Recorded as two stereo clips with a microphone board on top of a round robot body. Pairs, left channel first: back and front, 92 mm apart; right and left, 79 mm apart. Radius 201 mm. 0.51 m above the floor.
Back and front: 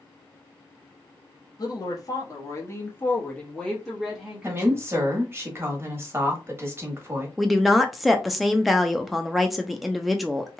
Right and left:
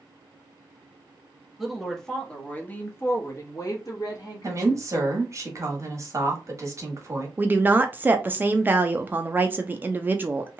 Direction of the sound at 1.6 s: 175° left.